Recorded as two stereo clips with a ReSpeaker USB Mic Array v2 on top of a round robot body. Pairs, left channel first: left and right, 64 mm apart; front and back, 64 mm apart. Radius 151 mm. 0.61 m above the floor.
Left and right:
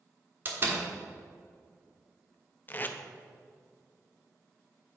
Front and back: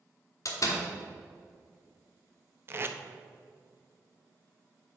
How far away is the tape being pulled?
About 0.8 m.